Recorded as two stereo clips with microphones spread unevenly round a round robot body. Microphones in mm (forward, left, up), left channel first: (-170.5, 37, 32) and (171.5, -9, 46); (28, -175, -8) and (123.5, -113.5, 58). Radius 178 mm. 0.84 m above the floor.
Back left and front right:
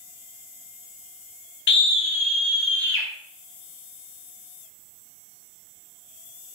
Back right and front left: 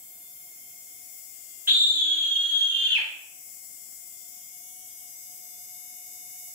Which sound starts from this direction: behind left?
A scream, at 1.7 s.